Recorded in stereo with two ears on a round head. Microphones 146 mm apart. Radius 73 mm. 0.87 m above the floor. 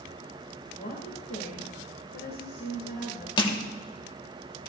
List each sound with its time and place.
0.7 s a woman speaking: 60° left (ahead or behind), 1.8 m
3.4 s crushing: 30° left (ahead or behind), 1.0 m